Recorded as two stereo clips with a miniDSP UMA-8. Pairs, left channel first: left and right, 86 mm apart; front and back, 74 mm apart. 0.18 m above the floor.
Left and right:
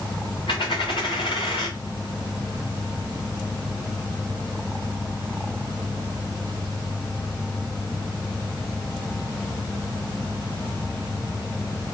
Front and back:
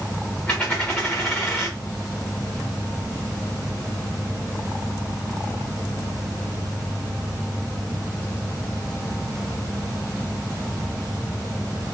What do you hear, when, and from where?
0.5 s a dropped coin: 75° left, 3.5 m